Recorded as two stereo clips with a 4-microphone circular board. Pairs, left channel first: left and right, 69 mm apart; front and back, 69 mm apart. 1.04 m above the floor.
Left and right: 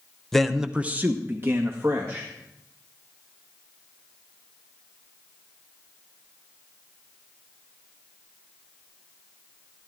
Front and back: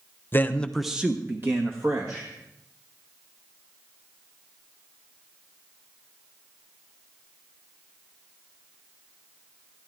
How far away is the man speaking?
About 0.8 m.